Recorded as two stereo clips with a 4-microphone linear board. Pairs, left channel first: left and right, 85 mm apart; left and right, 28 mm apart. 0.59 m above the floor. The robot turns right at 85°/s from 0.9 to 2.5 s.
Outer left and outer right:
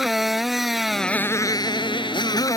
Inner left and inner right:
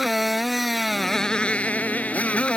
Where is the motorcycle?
5° right; by 2.6 s 135° left.